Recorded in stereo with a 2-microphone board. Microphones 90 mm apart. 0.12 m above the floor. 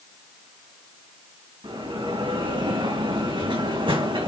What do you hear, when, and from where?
1.6 s a bell: 75° right (ahead or behind), 3 m